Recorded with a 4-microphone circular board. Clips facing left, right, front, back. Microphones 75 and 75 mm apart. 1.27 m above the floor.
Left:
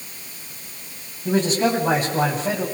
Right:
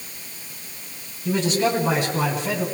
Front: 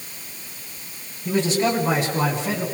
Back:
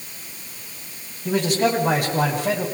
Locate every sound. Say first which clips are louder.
1.2 s a man speaking: left 2 dB, back 1 dB; 145° left, 9.5 m